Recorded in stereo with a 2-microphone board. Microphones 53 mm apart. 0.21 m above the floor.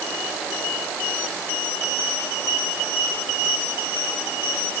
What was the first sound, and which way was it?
Only background noise.